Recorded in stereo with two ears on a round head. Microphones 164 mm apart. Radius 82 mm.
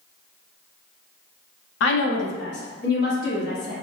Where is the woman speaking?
75° left (ahead or behind), 0.6 m; by 3.7 s 55° left (ahead or behind), 1.7 m.